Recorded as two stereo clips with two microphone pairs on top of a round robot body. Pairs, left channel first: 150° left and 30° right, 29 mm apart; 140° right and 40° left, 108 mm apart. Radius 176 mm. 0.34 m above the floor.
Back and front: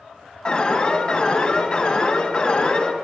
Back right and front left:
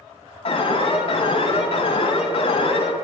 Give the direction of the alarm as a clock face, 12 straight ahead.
6 o'clock.